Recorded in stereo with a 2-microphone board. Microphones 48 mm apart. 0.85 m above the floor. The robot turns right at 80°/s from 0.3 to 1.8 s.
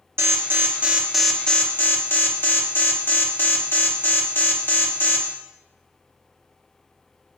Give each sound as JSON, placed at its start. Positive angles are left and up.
{"t": 0.2, "sound": "an alarm", "azimuth_deg": -65, "distance_m": 0.6}